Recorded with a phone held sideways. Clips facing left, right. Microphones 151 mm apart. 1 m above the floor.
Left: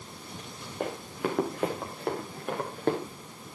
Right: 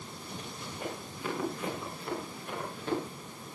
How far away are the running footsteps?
About 5.5 m.